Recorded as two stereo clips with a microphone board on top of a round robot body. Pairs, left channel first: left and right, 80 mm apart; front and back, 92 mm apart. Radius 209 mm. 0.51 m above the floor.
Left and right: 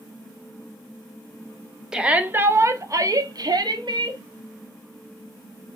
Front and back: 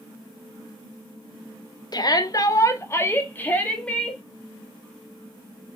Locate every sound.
1.9 s a shout: 10° right, 1.1 m; by 4.2 s 80° right, 1.7 m